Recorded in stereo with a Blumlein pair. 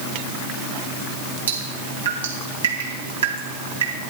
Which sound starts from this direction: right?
Dripping, at 1.5 s.